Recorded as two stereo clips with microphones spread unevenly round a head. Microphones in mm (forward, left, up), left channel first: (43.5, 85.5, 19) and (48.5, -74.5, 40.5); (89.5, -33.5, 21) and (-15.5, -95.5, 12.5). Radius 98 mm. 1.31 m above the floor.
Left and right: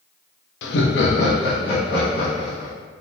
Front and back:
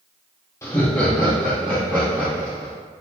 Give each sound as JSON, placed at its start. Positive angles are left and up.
{"t": 0.6, "sound": "laughter", "azimuth_deg": 105, "distance_m": 0.5}